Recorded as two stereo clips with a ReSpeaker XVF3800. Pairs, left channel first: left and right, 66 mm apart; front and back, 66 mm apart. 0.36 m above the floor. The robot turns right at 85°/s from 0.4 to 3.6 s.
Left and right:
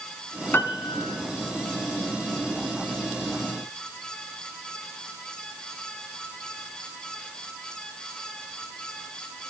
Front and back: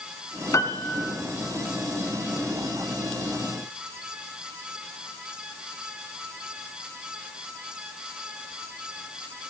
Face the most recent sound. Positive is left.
turn(degrees=-65)